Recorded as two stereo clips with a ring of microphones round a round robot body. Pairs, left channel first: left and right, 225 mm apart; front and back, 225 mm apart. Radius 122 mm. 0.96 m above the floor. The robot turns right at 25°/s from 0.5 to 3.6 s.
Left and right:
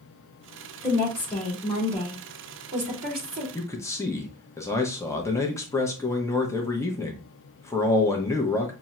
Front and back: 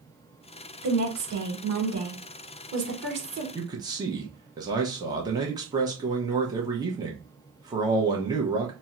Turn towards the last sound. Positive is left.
turn(degrees=145)